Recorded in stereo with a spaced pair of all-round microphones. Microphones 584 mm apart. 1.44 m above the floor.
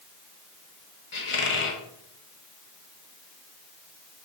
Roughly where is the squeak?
Left.